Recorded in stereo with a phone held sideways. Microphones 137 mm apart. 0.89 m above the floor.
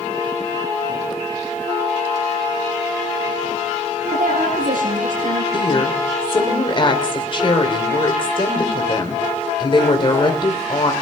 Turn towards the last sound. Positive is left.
turn(degrees=40)  # may be behind; listen again after turning